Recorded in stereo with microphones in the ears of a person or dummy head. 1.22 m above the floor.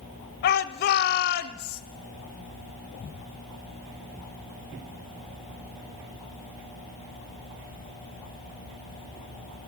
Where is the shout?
50° left (ahead or behind), 0.7 m.